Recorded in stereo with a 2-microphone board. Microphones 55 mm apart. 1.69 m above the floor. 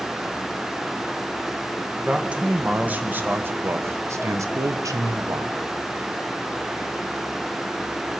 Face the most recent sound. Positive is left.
turn(degrees=-80)